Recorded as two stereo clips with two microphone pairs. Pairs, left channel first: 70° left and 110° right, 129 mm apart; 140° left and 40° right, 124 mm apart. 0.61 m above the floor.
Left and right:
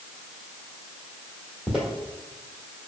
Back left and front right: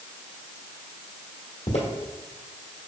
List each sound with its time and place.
1.7 s footsteps: 160° left, 1.4 m